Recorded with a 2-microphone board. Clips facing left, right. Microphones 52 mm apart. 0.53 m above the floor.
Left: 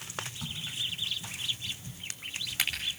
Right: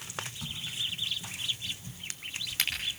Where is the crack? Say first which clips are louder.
Right 1 dB; 5° left (ahead or behind), 9 m.